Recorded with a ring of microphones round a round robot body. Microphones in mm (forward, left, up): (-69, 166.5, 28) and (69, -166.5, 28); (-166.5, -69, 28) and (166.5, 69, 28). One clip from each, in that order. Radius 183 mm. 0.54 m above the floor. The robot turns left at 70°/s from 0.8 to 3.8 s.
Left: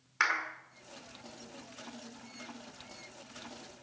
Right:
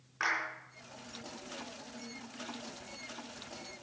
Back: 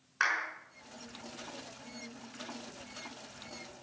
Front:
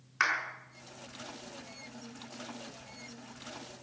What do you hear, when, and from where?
0.2 s a clap: 85° left, 5.5 m